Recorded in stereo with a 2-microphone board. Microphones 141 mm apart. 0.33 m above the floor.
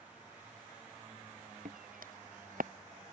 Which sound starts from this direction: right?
Footsteps, at 1.6 s.